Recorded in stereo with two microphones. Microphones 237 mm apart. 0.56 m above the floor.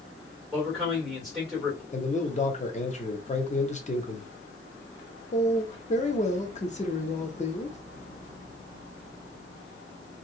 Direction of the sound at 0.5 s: Centre (ahead or behind).